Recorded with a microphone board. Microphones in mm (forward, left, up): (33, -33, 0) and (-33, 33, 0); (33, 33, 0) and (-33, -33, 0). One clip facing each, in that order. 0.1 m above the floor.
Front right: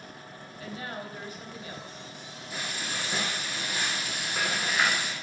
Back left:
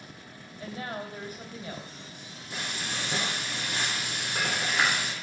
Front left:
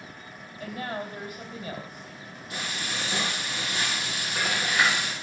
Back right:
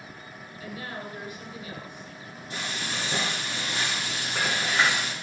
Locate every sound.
0.6 s a woman speaking: 90° left, 2.5 m
2.5 s frying: 170° left, 4.5 m